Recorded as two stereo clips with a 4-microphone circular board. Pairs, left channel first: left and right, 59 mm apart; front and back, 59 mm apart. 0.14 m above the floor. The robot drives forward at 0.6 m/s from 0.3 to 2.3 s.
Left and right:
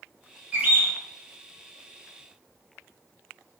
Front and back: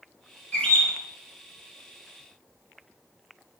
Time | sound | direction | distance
0.5 | a bird | 45° right | 1.9 m